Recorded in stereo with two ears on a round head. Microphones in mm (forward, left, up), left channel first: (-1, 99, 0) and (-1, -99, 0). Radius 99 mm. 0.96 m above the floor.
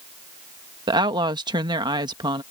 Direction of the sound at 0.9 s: 20° right (ahead or behind).